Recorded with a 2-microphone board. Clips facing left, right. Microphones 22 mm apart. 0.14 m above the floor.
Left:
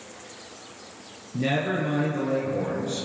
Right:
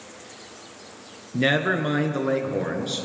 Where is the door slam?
I don't hear a door slam.